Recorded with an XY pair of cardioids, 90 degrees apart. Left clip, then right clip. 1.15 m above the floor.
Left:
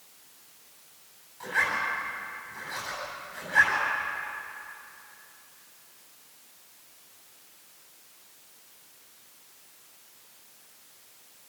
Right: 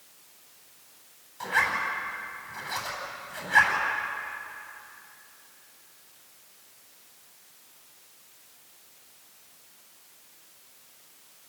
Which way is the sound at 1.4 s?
55° right.